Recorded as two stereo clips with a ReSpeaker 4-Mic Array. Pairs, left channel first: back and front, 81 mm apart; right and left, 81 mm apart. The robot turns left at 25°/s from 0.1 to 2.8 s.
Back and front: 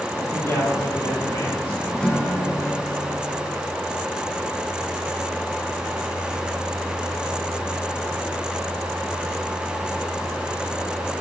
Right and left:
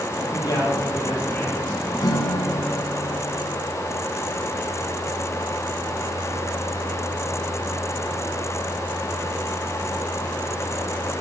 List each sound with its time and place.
0.3 s a man speaking: 125° right, 8 m; by 1.9 s 165° right, 8 m
2.0 s a guitar: 105° right, 3 m; by 3.6 s 125° right, 3 m